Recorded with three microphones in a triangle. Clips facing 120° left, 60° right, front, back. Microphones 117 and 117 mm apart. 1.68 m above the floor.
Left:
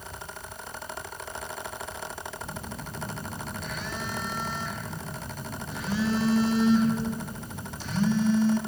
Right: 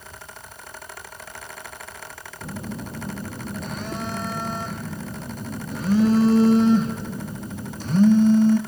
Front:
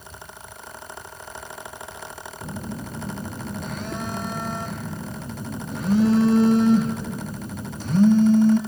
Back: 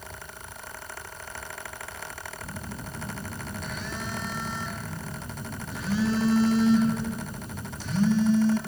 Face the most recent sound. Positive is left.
turn(degrees=-25)